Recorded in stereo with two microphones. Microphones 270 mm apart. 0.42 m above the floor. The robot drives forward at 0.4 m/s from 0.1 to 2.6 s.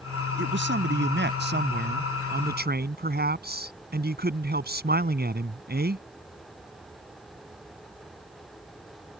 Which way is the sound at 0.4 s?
45° right (ahead or behind).